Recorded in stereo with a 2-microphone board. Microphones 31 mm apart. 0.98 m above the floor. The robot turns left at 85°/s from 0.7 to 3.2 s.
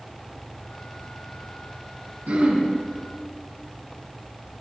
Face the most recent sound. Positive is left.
turn(degrees=180)